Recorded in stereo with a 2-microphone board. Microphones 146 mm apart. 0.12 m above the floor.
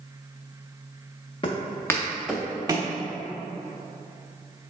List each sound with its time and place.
1.4 s footsteps: 35° left (ahead or behind), 0.7 m; by 2.9 s 35° right (ahead or behind), 0.7 m